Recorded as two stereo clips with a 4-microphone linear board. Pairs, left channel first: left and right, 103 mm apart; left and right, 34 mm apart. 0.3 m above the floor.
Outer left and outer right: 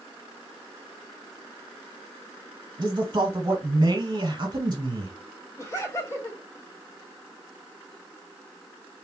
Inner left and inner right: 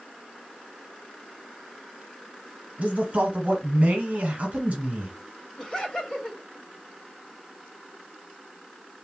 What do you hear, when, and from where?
2.8 s a man speaking: 40° right (ahead or behind), 1.2 m
5.6 s laughter: 30° left (ahead or behind), 1.2 m